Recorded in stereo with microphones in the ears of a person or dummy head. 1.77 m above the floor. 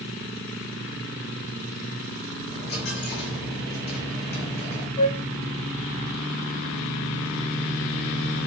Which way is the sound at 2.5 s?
55° left (ahead or behind).